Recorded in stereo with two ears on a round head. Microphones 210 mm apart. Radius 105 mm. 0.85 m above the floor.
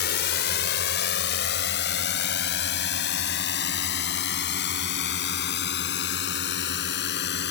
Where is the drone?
55° left (ahead or behind).